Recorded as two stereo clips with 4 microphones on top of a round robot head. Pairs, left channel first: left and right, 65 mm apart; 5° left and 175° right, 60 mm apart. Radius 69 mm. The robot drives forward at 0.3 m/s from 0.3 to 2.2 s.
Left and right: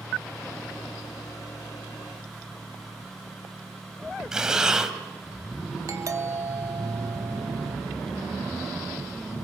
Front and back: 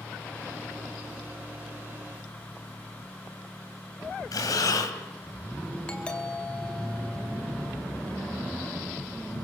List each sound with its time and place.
4.3 s breathing: 10° right, 2.5 m
5.9 s a doorbell: 70° right, 2.5 m